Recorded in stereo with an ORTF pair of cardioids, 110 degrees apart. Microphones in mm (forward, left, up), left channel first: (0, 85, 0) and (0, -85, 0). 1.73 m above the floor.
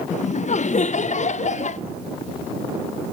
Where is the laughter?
45° left, 0.6 m.